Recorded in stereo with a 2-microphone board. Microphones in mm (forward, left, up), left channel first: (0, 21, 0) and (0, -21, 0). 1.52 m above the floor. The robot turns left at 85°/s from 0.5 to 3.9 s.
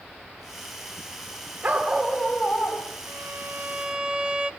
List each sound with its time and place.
1.6 s a dog barking: 145° right, 4.5 m; by 2.9 s 110° left, 4.5 m
3.1 s a violin: 90° right, 1.1 m; by 4.5 s 160° right, 1.1 m